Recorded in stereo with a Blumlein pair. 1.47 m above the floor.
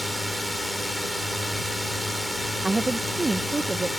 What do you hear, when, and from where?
0.0 s a drone: 5° left
2.6 s a woman speaking: 5° right